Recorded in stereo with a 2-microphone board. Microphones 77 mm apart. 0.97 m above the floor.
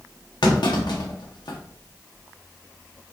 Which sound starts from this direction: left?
A clunk, at 0.4 s.